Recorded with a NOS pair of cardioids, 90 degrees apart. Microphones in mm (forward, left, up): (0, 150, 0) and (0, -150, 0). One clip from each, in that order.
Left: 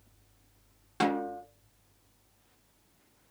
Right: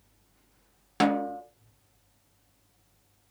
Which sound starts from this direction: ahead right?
A snare drum, at 1.0 s.